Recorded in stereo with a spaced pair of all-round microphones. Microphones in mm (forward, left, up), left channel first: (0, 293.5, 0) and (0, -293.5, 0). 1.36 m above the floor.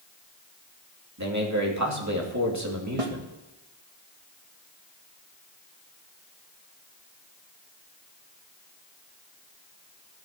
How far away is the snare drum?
About 1.4 m.